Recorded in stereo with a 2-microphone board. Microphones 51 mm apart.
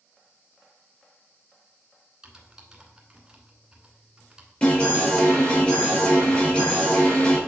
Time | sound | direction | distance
2.2 | typing on a keyboard | 15° right (ahead or behind) | 1.4 m
4.6 | an alarm | 20° left (ahead or behind) | 3.5 m